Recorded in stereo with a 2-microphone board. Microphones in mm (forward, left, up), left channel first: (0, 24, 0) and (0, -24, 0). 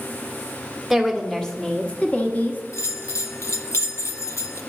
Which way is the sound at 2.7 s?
70° left (ahead or behind).